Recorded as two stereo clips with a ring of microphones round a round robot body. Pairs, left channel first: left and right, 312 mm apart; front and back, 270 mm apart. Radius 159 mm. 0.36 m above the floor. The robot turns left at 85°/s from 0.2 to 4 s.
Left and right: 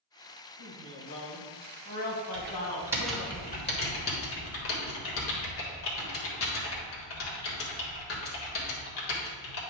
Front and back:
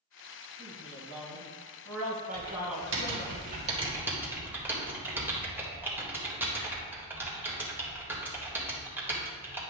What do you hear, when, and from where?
0.6 s a man speaking: 85° right, 2.5 m; by 3.3 s 40° left, 2.5 m
2.3 s typing on a keyboard: 115° right, 1.8 m; by 9.6 s 100° left, 1.8 m